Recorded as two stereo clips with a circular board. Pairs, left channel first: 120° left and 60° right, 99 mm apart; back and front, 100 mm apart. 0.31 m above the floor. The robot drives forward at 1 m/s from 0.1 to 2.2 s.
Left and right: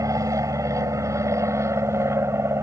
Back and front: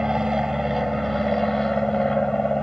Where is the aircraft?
80° right; by 2.6 s 100° right.